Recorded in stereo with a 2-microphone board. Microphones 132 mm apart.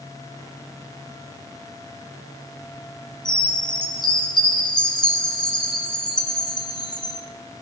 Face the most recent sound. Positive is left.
turn(degrees=35)  # may be behind; listen again after turning